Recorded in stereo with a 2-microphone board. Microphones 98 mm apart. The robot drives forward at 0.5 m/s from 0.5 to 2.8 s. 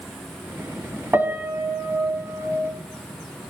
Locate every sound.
1.1 s a piano: 25° right (ahead or behind), 1.6 m; by 2.7 s 15° right (ahead or behind), 2 m